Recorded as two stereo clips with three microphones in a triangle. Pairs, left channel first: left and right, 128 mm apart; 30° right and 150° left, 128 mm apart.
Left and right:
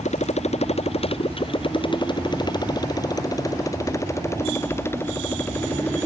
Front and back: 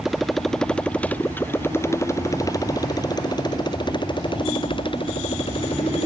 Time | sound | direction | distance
0.0 | a motorcycle | 65° left | ?